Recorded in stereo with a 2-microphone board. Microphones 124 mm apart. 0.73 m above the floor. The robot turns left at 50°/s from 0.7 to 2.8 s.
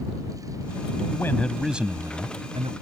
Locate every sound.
1.1 s a man speaking: 25° left; by 2.7 s 55° right